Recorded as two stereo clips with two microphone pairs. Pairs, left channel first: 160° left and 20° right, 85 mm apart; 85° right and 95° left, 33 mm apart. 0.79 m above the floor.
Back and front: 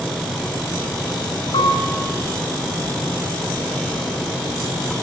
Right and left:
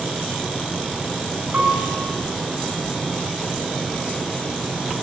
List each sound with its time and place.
1.5 s a piano: 135° left, 8 m